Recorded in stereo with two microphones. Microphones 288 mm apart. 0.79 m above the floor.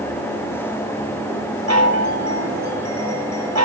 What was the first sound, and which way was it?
A chime, 70° right (ahead or behind).